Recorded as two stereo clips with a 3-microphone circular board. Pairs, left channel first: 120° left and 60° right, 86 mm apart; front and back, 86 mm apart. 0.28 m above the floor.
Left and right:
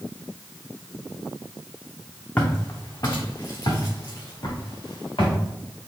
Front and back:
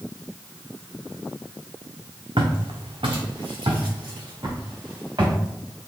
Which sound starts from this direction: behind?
Footsteps, at 2.4 s.